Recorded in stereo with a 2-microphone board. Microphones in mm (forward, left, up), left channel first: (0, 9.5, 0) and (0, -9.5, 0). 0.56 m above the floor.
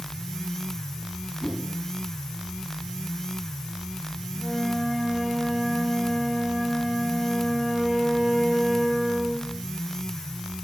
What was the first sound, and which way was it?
A whoosh, 15° right (ahead or behind).